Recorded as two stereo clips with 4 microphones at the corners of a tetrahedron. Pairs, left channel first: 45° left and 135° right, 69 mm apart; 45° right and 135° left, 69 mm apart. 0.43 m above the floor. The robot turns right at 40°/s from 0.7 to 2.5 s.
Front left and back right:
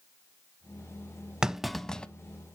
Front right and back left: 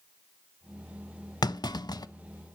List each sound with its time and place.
1.4 s a clunk: 55° right, 0.5 m; by 2.1 s 30° right, 0.5 m